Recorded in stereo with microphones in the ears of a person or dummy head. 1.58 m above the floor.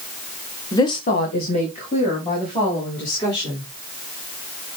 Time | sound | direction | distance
0.7 | a woman speaking | 15° left (ahead or behind) | 0.7 m